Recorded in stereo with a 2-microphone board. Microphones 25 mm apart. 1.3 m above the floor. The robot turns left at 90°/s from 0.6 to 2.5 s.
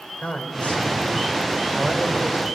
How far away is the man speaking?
About 4 m.